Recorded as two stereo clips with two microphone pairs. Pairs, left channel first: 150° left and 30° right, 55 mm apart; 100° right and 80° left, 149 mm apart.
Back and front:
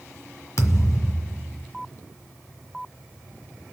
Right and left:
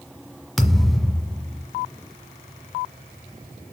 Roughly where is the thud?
Behind.